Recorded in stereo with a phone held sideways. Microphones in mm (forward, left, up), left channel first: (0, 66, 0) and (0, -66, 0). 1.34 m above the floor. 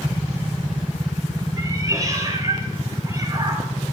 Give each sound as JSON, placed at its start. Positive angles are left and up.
{"t": 1.6, "sound": "a cat meowing", "side_deg": -25, "distance_m": 5.5}